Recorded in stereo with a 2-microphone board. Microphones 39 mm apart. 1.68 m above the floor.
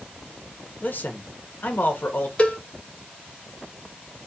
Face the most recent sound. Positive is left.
turn(degrees=35)  # may be behind; listen again after turning